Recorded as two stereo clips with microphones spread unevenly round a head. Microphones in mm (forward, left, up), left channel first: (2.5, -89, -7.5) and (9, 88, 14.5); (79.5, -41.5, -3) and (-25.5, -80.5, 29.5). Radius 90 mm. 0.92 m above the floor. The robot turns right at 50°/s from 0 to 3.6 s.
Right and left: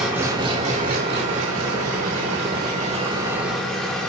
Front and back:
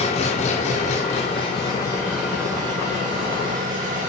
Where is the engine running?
Straight ahead, 2.5 m; by 4.1 s straight behind, 2.5 m.